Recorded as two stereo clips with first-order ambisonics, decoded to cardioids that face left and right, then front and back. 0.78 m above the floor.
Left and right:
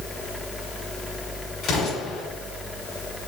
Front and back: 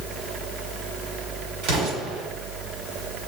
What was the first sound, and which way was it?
An explosion, 155° left.